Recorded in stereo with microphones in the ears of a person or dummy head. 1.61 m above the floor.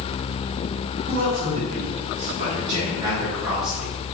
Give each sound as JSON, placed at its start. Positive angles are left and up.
{"t": 1.1, "sound": "a man speaking", "side_deg": -60, "distance_m": 1.9}